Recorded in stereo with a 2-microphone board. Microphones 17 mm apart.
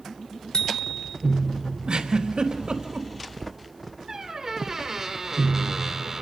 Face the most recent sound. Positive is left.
turn(degrees=-35)  # may be behind; listen again after turning